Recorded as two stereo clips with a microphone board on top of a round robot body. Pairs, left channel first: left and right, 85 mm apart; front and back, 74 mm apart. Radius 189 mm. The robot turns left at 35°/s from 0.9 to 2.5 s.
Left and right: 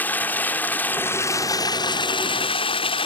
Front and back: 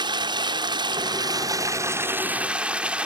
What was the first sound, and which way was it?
Running water, 160° left.